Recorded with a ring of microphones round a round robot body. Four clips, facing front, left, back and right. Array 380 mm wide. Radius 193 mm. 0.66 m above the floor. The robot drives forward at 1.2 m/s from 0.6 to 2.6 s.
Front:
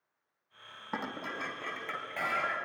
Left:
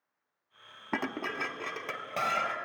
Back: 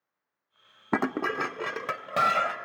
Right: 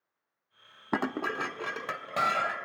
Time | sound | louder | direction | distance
0.9 | dishes clattering | right 4 dB, back 11 dB | 165° right | 1.0 m